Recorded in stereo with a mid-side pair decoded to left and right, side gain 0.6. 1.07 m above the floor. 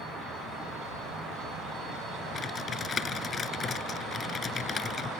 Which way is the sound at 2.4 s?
35° left.